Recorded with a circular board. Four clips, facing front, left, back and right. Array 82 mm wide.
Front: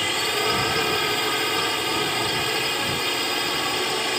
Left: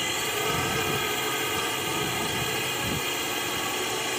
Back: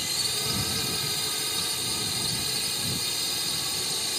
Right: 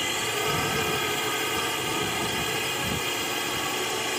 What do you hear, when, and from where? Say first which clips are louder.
0.0 s a drone: right 1 dB, front 12 dB; 5° right